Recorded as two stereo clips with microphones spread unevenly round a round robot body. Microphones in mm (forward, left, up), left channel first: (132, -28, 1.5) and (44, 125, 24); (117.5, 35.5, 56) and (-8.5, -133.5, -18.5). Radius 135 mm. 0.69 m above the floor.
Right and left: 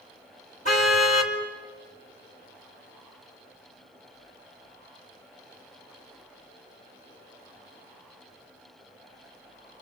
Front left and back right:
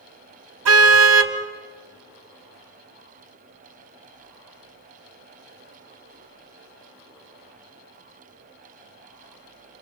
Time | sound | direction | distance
0.7 | a car horn | 125° right | 2 m